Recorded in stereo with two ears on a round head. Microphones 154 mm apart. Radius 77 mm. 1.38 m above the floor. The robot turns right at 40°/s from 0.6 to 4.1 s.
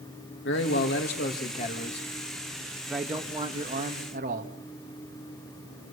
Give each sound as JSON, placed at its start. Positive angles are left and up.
{"t": 0.5, "sound": "a man speaking", "azimuth_deg": 90, "distance_m": 2.5}